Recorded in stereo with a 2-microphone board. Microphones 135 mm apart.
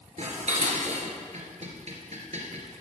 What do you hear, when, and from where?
0.2 s dishes clattering: 60° right (ahead or behind), 2 m